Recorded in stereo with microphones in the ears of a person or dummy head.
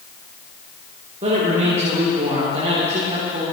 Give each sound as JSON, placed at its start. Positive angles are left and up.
{"t": 1.2, "sound": "a man speaking", "side_deg": -35, "distance_m": 3.0}